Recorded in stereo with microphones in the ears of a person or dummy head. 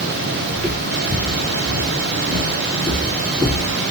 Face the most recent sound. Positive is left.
turn(degrees=0)  # may be behind; listen again after turning